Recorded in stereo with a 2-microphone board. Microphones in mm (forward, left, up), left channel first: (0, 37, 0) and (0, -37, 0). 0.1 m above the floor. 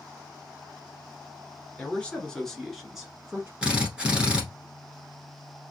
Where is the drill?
15° right (ahead or behind), 1.1 m.